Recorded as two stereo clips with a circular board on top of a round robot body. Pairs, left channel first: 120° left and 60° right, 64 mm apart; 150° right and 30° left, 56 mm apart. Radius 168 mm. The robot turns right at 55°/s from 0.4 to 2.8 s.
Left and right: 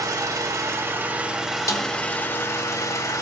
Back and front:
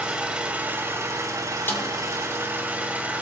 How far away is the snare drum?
About 1.4 m.